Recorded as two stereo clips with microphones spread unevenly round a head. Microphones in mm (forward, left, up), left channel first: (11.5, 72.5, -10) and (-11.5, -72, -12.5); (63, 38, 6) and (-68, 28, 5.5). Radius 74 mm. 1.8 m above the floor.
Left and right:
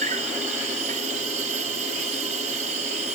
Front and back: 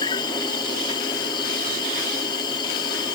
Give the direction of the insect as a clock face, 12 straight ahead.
2 o'clock.